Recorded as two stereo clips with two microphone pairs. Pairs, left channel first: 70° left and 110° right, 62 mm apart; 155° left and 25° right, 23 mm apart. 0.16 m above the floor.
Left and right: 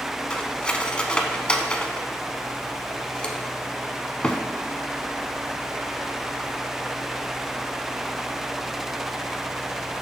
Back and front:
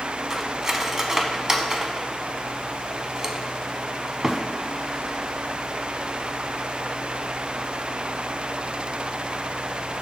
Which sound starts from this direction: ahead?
Cutlery clinking, at 0.3 s.